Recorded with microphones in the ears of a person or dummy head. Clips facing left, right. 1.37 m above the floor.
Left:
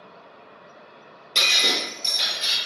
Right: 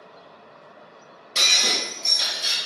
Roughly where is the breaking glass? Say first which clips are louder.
Left 1 dB; centre.